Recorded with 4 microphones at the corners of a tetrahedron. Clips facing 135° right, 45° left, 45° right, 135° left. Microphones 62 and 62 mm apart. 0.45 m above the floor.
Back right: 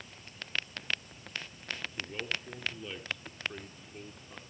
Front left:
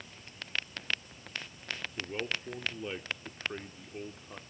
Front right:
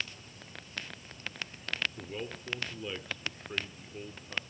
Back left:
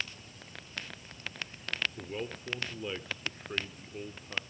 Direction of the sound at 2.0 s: 75° left.